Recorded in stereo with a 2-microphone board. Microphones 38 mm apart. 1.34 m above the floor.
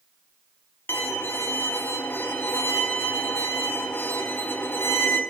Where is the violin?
70° left (ahead or behind), 0.7 m.